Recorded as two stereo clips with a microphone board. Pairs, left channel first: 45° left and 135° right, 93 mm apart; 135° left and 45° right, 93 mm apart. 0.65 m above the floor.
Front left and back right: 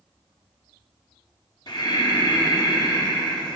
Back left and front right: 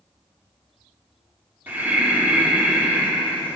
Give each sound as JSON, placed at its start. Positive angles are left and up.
{"t": 1.7, "sound": "breathing", "azimuth_deg": 20, "distance_m": 1.7}